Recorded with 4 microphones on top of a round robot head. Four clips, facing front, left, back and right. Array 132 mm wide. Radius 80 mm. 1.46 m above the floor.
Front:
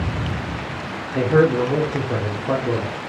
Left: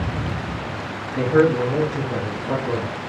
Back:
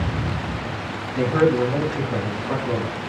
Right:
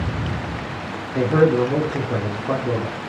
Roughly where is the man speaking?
Ahead right.